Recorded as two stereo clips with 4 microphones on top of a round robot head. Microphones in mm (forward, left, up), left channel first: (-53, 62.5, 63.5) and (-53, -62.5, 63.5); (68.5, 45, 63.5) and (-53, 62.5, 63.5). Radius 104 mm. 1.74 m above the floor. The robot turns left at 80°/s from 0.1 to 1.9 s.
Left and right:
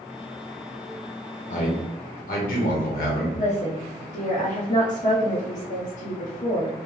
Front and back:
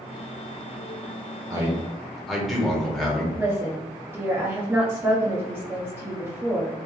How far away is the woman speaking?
About 0.8 m.